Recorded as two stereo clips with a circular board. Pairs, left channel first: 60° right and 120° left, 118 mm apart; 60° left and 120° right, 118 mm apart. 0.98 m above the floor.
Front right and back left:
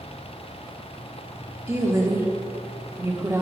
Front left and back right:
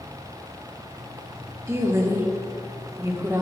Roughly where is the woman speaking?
Behind.